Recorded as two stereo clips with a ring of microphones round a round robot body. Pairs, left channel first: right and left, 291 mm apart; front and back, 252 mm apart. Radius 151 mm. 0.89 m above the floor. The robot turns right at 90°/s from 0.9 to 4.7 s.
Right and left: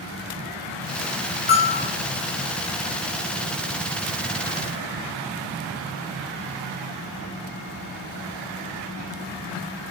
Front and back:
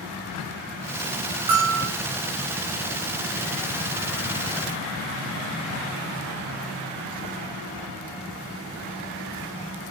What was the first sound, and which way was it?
A bell, 150° right.